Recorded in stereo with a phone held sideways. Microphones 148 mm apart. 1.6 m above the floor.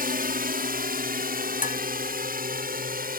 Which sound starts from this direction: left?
Dishes clattering, at 1.6 s.